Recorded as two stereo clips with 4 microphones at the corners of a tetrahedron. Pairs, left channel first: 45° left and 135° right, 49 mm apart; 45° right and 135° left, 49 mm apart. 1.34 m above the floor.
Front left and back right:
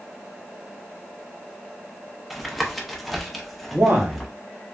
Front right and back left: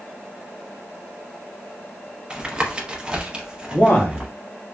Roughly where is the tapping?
Behind left.